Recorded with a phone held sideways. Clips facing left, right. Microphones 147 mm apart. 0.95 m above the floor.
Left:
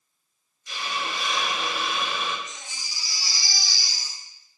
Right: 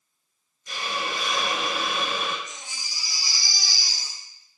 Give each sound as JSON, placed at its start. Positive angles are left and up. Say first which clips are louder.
{"t": 0.7, "sound": "a hiss", "louder": "right 1 dB", "side_deg": -45, "distance_m": 0.6}
{"t": 2.5, "sound": "a baby crying", "louder": "even", "side_deg": -70, "distance_m": 2.0}